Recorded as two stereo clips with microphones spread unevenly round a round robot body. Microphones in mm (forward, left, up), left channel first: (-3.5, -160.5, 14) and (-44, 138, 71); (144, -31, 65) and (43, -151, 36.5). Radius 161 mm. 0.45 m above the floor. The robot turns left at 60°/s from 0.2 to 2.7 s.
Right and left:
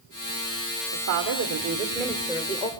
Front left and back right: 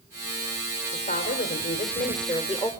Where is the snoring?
No snoring in this recording.